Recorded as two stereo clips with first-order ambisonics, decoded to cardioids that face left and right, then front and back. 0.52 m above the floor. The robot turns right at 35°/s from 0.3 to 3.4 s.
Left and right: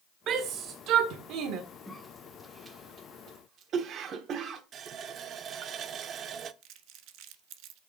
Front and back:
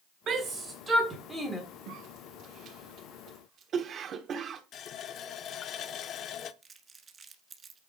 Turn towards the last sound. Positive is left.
turn(degrees=-115)